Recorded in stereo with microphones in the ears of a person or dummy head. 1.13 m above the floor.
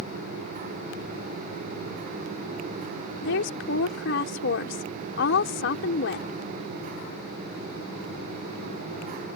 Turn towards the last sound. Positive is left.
turn(degrees=70)  # may be behind; listen again after turning